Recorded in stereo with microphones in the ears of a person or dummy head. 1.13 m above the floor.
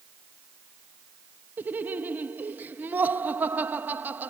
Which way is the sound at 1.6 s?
10° right (ahead or behind).